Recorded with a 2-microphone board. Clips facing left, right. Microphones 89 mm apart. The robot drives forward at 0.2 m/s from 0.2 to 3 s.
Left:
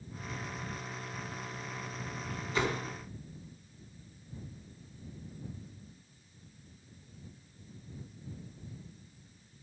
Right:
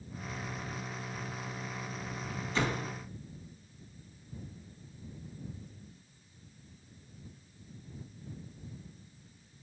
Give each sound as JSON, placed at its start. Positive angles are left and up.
{"t": 2.5, "sound": "a door slam", "side_deg": 10, "distance_m": 3.5}